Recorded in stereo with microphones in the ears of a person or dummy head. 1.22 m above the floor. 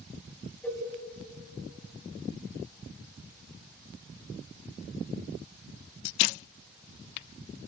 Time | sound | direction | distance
0.6 | a cowbell | 5° left (ahead or behind) | 2.5 m